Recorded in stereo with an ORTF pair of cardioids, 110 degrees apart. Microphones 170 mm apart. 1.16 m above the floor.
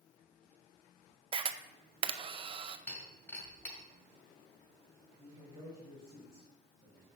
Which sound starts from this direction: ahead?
Breaking glass, at 2.9 s.